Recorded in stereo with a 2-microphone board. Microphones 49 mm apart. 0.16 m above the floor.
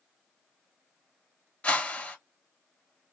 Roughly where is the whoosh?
Left.